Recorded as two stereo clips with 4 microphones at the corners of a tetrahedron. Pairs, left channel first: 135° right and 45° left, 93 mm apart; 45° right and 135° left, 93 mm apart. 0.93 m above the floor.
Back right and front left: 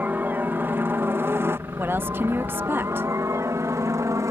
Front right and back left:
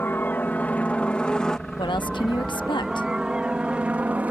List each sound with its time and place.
0.0 s a helicopter: 5° right; by 4.3 s 75° left
1.8 s a woman speaking: 20° right